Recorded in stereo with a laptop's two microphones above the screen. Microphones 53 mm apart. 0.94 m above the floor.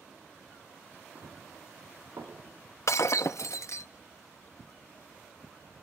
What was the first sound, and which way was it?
Running footsteps, 75° right (ahead or behind).